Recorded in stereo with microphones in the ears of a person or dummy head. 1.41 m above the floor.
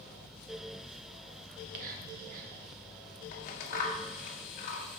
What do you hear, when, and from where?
1.5 s whispering: 50° right (ahead or behind), 1.9 m
3.3 s scissors: 45° left (ahead or behind), 1.3 m